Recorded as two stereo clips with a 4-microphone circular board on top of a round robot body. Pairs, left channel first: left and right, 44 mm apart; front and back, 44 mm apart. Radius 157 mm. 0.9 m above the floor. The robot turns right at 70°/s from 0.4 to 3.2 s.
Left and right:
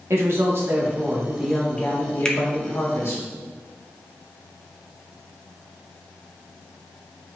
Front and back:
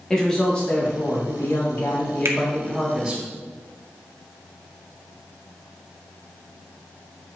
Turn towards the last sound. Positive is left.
turn(degrees=-130)